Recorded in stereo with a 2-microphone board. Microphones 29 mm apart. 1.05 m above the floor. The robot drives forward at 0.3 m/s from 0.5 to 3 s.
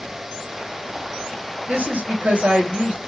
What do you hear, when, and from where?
1.7 s a woman speaking: 60° right (ahead or behind), 1.7 m; by 3.0 s 55° right (ahead or behind), 1.8 m